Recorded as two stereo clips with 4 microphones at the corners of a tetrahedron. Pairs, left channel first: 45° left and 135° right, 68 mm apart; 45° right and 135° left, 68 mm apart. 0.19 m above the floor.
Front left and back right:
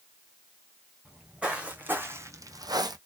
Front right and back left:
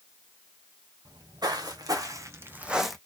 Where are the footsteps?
145° left, 1.2 m; by 3.0 s 130° right, 0.5 m.